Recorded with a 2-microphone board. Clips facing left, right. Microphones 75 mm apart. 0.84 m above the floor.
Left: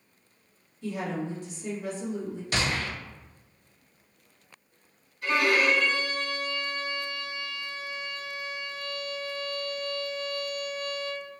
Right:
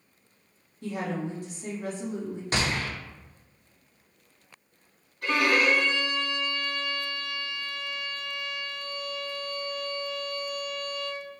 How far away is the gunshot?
About 1.3 m.